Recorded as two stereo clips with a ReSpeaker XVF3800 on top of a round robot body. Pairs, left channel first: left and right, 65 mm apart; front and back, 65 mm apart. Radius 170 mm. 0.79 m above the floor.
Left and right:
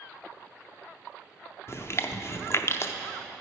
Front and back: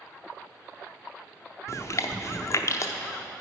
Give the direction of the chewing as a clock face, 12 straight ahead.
11 o'clock.